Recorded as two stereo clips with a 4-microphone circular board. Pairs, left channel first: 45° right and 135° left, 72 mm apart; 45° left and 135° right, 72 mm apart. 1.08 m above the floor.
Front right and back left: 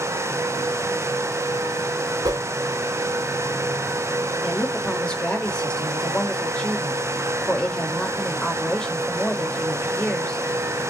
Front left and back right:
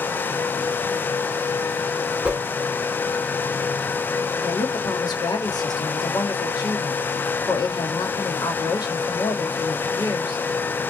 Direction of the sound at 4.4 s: 30° left.